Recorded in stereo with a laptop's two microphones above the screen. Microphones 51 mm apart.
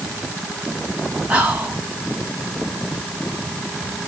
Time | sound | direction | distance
1.3 | whispering | 30° right (ahead or behind) | 2 m